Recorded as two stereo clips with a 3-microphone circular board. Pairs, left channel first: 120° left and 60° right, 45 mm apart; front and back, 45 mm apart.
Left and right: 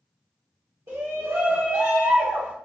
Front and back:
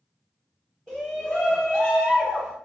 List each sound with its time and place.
0.9 s a shout: 70° right, 1.3 m